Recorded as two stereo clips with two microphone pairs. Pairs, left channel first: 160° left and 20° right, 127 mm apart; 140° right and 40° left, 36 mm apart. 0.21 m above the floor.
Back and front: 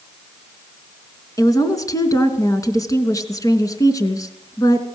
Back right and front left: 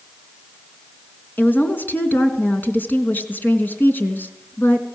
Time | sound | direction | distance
1.4 | a woman speaking | 140° right | 2.5 m